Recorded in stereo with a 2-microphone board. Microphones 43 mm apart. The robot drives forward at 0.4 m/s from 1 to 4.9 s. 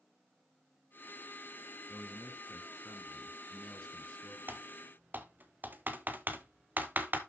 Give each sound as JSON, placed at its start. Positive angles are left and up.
{"t": 1.9, "sound": "a man speaking", "side_deg": 20, "distance_m": 1.1}
{"t": 4.5, "sound": "typing on a keyboard", "side_deg": -55, "distance_m": 1.0}